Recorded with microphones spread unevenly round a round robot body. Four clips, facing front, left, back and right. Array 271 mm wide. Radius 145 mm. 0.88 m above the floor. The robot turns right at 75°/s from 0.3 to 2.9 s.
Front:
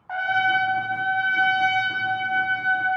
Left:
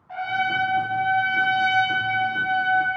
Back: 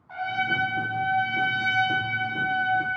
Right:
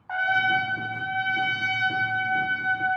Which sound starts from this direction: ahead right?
A trumpet, at 0.1 s.